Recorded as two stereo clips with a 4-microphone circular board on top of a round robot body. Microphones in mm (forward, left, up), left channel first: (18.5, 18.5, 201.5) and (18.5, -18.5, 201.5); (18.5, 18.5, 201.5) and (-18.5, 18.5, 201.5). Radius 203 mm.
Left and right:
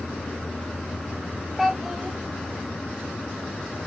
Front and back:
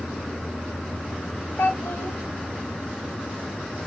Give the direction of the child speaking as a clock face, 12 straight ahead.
12 o'clock.